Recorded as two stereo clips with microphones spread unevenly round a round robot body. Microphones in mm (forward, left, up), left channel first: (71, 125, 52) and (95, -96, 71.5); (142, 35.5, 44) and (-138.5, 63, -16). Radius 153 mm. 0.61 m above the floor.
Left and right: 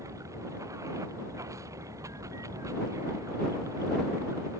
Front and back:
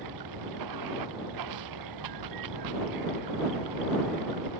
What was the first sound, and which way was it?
Running water, 165° right.